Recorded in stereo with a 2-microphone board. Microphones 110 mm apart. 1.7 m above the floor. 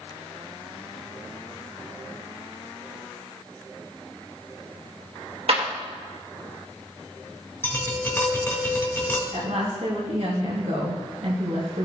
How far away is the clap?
About 1.6 m.